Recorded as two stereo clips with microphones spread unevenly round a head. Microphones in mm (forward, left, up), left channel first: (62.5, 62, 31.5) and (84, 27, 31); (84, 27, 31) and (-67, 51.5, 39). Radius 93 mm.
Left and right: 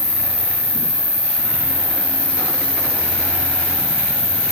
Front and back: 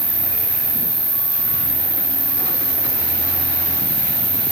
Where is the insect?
90° left, 5 m.